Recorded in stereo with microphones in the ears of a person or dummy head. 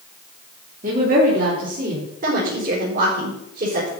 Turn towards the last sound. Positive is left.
turn(degrees=-50)  # may be behind; listen again after turning